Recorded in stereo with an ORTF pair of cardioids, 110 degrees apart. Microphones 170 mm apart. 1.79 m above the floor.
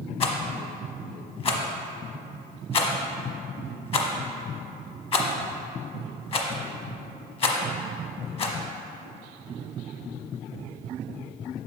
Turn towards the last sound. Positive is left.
turn(degrees=35)